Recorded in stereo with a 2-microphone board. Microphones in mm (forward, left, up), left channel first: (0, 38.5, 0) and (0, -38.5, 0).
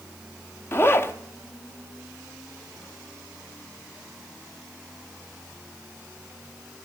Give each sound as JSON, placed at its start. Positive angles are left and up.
{"t": 0.7, "sound": "a zipper", "side_deg": 30, "distance_m": 0.7}